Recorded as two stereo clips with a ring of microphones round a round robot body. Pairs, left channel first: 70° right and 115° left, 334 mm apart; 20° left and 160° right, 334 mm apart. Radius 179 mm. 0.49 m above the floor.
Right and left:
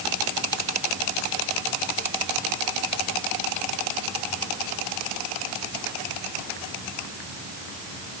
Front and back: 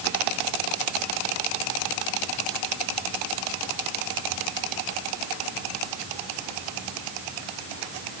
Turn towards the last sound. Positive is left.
No sound to turn to.